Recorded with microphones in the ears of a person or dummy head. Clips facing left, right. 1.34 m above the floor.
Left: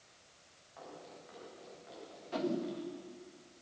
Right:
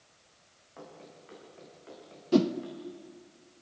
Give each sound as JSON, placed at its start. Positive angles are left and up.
{"t": 0.8, "sound": "running footsteps", "side_deg": -45, "distance_m": 8.0}
{"t": 2.3, "sound": "a whoosh", "side_deg": -65, "distance_m": 1.1}